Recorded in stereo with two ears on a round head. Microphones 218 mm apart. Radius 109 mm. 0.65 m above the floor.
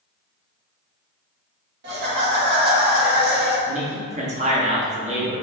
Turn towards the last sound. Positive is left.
turn(degrees=-30)  # may be behind; listen again after turning